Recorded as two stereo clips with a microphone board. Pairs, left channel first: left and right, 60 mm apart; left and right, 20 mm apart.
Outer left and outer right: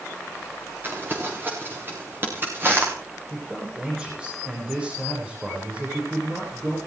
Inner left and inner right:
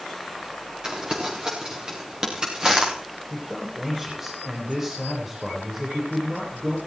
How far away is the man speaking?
About 9.5 m.